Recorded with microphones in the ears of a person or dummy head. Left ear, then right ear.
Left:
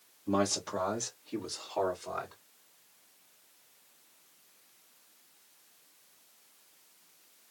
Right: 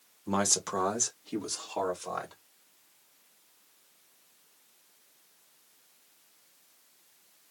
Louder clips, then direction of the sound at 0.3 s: Right 1 dB; 55° right (ahead or behind).